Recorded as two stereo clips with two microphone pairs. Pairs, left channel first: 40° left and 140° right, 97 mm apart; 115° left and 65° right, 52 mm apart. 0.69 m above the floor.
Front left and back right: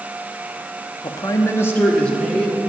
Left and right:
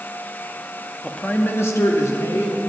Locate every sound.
1.0 s a man speaking: 45° left, 0.8 m; by 2.6 s 125° left, 2 m